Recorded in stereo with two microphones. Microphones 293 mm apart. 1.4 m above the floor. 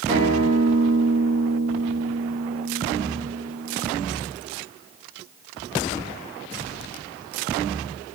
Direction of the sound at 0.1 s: 25° right (ahead or behind).